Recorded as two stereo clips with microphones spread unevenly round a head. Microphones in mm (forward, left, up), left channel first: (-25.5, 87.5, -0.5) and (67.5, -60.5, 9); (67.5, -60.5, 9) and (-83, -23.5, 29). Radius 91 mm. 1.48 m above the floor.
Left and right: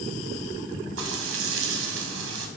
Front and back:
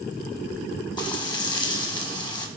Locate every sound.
1.0 s frying: 75° right, 1.3 m